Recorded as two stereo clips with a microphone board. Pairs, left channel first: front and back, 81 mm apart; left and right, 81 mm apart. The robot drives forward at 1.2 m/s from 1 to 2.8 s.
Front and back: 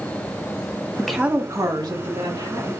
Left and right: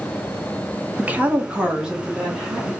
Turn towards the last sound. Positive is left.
turn(degrees=-175)